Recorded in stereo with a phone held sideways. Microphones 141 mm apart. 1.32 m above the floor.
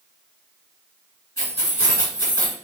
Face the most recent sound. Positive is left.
turn(degrees=20)  # may be behind; listen again after turning